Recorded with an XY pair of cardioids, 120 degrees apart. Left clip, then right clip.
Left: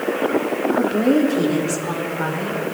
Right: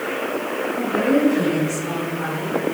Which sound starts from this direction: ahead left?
A woman speaking, at 0.8 s.